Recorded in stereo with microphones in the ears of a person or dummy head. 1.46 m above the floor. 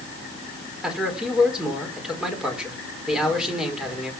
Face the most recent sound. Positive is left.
turn(degrees=0)  # may be behind; listen again after turning